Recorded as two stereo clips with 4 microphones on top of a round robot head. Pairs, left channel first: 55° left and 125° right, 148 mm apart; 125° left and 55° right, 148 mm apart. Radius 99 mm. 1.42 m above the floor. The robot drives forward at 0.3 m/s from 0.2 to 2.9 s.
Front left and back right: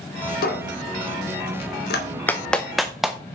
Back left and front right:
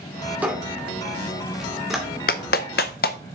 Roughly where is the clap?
Behind left.